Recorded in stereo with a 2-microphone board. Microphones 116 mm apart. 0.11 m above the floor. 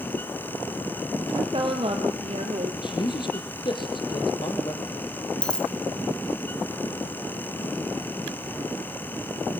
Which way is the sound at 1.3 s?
45° right (ahead or behind).